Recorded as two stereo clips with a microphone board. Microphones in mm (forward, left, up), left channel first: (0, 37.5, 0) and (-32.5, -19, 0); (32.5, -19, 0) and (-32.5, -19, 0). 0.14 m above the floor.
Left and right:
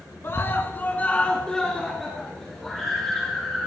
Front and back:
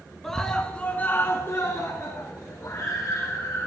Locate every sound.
0.2 s a scream: 85° left, 1.9 m; by 3.7 s 45° right, 4 m